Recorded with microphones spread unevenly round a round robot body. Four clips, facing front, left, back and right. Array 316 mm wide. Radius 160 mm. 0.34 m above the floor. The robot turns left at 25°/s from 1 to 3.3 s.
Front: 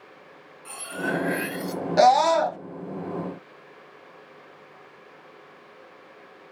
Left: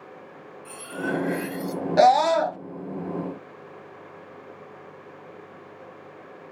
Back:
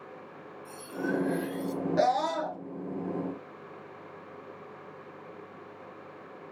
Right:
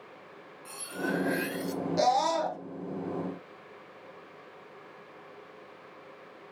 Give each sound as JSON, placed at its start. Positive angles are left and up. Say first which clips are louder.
{"t": 0.7, "sound": "cutlery clinking", "louder": "left 4 dB, front 3 dB", "azimuth_deg": 15, "distance_m": 1.1}
{"t": 2.0, "sound": "a scream", "louder": "left 9 dB, front 10 dB", "azimuth_deg": 50, "distance_m": 2.0}